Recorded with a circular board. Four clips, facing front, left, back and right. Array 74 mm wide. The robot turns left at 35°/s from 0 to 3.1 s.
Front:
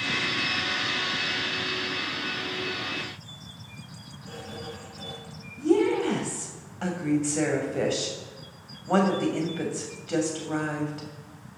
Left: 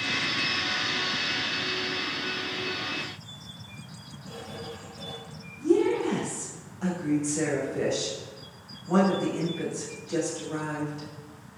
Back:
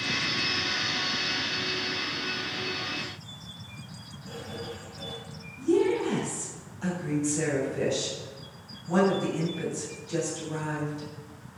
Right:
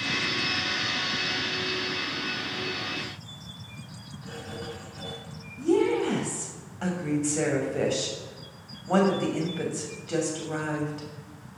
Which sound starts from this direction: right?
Writing, at 4.2 s.